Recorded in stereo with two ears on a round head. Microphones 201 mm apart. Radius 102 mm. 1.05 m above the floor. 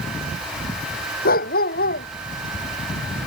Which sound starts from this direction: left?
A dog barking, at 1.2 s.